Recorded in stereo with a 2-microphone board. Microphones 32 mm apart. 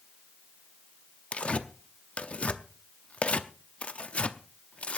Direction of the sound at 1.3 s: 40° left (ahead or behind).